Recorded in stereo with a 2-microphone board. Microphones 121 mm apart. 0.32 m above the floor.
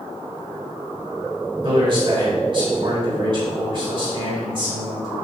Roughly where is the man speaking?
Right.